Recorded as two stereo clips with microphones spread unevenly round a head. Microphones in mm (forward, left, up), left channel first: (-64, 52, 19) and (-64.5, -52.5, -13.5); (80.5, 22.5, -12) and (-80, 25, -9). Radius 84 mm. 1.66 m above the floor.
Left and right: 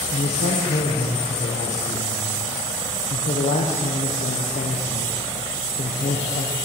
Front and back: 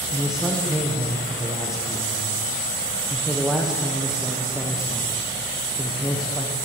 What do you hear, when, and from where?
0.1 s a man speaking: 90° left, 1.4 m